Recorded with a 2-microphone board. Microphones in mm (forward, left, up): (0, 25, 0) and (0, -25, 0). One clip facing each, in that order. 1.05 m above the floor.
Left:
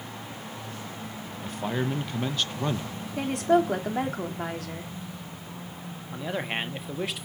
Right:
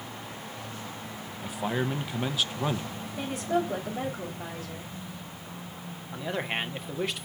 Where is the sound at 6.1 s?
5° left (ahead or behind), 1.3 m.